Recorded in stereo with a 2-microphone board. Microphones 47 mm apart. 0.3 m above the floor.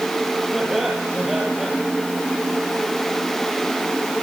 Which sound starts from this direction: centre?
Laughter, at 0.5 s.